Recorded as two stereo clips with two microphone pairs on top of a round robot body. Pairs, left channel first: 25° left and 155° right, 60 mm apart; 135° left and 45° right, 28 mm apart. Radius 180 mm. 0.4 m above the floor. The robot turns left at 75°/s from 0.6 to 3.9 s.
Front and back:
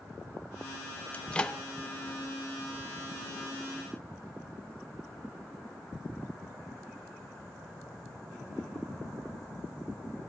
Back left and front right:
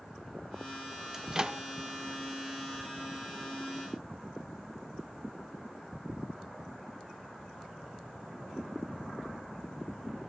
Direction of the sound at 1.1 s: 20° left.